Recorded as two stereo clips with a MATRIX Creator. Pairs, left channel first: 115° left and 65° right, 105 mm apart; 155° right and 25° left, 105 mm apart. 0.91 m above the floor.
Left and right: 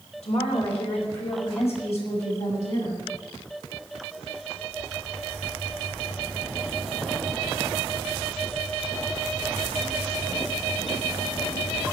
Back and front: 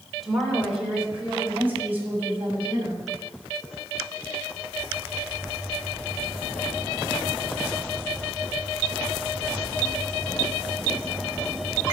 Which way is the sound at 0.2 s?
115° left.